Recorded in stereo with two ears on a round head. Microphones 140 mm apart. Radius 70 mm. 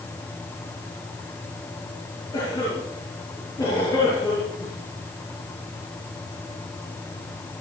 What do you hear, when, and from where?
2.3 s a cough: 25° left (ahead or behind), 8 m